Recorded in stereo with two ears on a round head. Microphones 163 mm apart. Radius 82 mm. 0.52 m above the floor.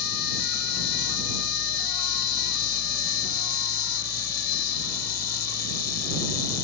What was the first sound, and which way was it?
An insect, 60° left (ahead or behind).